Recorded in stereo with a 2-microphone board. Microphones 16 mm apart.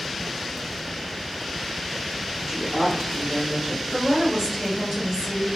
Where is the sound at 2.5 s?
45° right (ahead or behind), 1.0 m; by 3.8 s 50° right (ahead or behind), 1.5 m.